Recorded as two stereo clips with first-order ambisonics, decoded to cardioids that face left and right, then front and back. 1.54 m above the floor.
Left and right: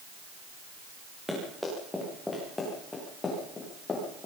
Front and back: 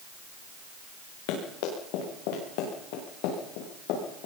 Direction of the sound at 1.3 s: Straight ahead.